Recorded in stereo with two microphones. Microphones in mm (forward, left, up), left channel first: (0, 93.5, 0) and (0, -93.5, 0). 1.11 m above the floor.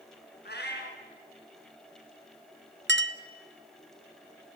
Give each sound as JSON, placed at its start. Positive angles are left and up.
{"t": 0.5, "sound": "a cat meowing", "side_deg": 65, "distance_m": 4.0}
{"t": 2.9, "sound": "a clink", "side_deg": -75, "distance_m": 0.8}